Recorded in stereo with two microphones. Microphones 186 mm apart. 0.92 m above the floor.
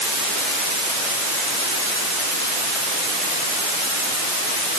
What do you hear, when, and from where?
Only background noise.